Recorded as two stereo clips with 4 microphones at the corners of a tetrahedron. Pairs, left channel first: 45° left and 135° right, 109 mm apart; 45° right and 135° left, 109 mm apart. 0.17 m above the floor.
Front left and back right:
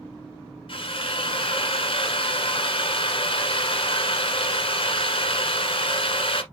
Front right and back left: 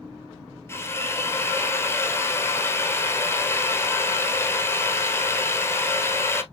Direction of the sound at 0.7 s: 20° left.